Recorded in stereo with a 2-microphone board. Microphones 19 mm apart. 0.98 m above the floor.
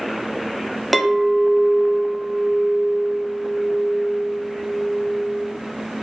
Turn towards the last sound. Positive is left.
turn(degrees=0)  # may be behind; listen again after turning